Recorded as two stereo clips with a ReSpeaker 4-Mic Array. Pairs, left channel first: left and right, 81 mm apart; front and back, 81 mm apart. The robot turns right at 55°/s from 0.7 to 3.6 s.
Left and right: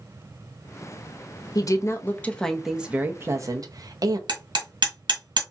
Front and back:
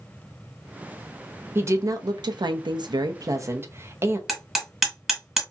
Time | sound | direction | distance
1.6 | a woman speaking | 120° left | 0.6 m
4.3 | hammering | 95° right | 1.4 m